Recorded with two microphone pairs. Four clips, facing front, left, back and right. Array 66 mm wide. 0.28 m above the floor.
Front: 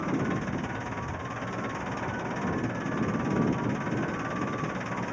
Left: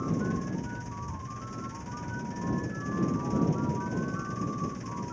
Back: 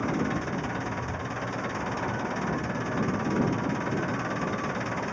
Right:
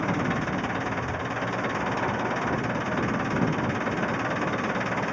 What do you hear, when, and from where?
0.0 s an engine running: 100° right